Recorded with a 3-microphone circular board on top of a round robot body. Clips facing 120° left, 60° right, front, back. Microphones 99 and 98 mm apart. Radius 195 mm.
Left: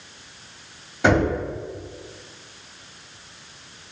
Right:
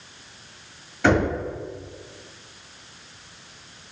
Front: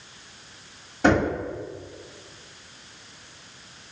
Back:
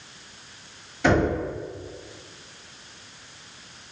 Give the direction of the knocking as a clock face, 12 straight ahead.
10 o'clock.